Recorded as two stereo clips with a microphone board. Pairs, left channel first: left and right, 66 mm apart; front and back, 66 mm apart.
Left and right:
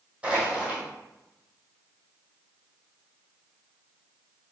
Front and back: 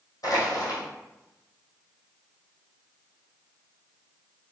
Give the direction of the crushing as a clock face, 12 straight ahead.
1 o'clock.